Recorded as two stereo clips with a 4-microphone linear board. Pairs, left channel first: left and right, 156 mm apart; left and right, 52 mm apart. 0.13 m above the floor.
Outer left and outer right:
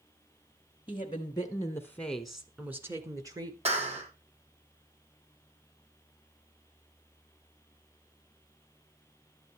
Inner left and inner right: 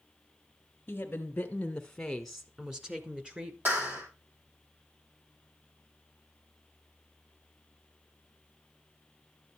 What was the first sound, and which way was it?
A woman speaking, 30° left (ahead or behind).